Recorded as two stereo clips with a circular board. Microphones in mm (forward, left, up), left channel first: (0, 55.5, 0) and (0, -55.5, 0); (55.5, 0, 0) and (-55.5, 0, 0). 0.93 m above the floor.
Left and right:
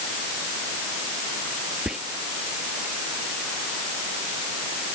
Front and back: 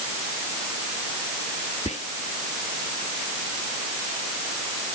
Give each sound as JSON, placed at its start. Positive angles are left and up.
{"t": 1.9, "sound": "whispering", "azimuth_deg": -5}